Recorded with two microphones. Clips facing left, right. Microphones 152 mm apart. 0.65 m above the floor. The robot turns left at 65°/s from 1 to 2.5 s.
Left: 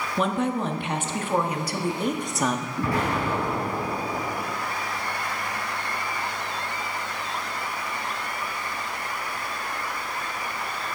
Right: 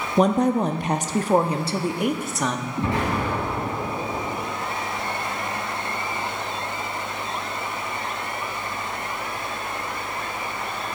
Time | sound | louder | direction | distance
0.2 | a woman speaking | right 6 dB | 90° right | 0.6 m
2.8 | an explosion | right 2 dB | 25° right (ahead or behind) | 3.5 m